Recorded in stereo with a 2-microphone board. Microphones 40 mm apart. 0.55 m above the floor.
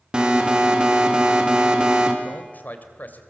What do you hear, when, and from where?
0.1 s an alarm: 25° right (ahead or behind), 2.5 m
2.2 s a man speaking: 45° left (ahead or behind), 2.5 m